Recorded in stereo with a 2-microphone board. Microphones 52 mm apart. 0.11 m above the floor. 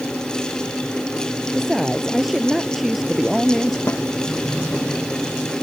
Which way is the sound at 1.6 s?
5° right (ahead or behind).